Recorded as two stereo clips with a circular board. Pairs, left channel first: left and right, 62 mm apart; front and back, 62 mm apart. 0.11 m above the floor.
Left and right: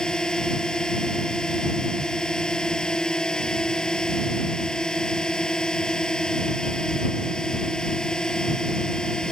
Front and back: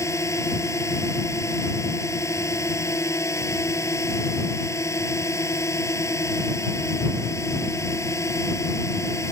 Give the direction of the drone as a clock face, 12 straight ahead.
11 o'clock.